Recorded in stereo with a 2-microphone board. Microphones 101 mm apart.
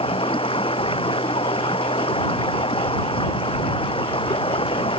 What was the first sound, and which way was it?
Running water, 70° left (ahead or behind).